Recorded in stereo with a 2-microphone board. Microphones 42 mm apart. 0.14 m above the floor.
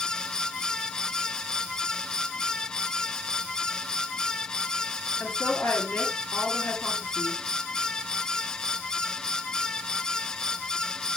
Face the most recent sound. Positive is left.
turn(degrees=50)  # may be behind; listen again after turning